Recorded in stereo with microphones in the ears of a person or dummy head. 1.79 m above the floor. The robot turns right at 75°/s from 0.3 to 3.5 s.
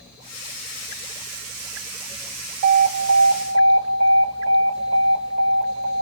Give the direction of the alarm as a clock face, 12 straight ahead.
4 o'clock.